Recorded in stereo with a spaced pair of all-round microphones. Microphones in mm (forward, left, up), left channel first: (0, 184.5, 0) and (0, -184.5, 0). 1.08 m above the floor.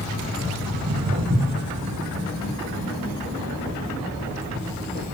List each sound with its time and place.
0.7 s footsteps: 40° right (ahead or behind), 5 m; by 5.0 s 30° right (ahead or behind), 10.5 m